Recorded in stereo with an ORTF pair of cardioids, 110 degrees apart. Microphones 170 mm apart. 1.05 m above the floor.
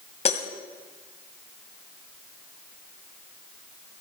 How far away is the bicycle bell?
No bicycle bell in this recording.